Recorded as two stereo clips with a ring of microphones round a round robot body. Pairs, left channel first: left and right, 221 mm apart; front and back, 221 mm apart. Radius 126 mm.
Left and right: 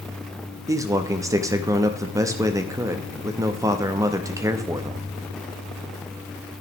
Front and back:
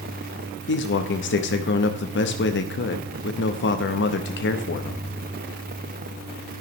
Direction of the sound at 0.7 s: 15° right.